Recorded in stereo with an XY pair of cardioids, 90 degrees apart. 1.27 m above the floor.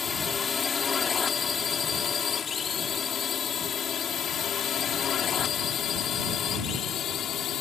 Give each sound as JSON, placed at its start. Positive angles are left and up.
{"t": 0.0, "sound": "a drone", "azimuth_deg": 40}